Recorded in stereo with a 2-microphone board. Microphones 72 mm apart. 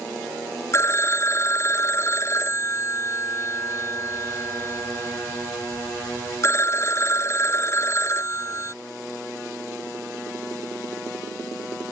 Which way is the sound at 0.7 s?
40° left (ahead or behind).